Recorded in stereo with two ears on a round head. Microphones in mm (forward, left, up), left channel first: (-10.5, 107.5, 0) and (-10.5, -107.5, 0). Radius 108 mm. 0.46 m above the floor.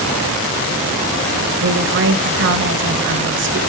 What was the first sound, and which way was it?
A woman speaking, 55° right (ahead or behind).